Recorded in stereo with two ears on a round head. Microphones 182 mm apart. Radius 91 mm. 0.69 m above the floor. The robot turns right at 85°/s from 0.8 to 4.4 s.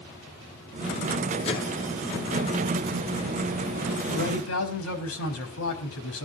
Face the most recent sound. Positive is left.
turn(degrees=80)